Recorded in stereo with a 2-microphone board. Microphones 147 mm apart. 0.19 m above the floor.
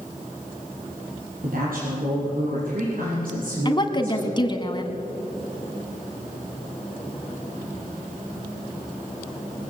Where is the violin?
No violin in this recording.